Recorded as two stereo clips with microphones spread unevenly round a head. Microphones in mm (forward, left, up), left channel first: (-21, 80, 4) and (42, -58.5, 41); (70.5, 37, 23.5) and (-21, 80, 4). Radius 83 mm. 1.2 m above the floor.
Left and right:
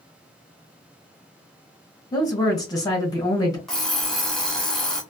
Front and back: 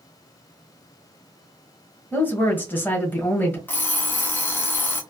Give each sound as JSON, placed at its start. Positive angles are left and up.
{"t": 2.1, "sound": "a woman speaking", "azimuth_deg": 45, "distance_m": 1.3}
{"t": 3.7, "sound": "an alarm clock", "azimuth_deg": 10, "distance_m": 0.8}